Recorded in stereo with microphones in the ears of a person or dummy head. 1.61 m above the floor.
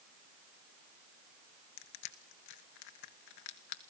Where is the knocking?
I don't hear knocking.